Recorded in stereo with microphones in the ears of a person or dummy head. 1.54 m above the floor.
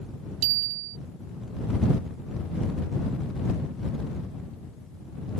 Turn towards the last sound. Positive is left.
turn(degrees=-85)